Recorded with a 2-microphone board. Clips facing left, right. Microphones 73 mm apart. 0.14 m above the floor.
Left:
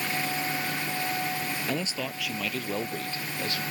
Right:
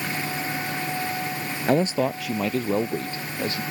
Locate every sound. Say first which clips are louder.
1.7 s a man speaking: right 10 dB; 50° right (ahead or behind); by 3.6 s 30° right (ahead or behind)